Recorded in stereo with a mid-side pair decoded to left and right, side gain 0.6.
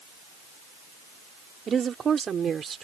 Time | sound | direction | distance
1.7 | a woman speaking | 35° right | ?